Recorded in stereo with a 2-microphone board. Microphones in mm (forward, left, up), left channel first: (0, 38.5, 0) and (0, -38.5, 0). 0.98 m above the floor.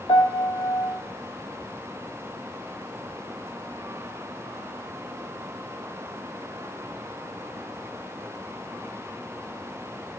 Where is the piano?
65° left (ahead or behind), 0.8 m.